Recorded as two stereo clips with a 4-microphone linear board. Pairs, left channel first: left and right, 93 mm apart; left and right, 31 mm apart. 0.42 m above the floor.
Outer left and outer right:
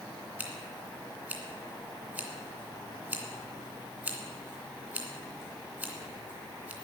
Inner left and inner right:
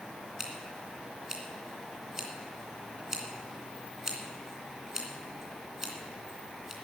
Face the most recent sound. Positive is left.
turn(degrees=-15)  # may be behind; listen again after turning